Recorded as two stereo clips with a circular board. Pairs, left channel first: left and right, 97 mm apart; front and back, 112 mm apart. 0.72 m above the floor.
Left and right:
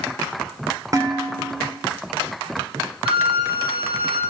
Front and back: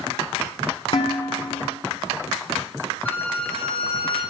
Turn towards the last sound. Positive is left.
turn(degrees=-75)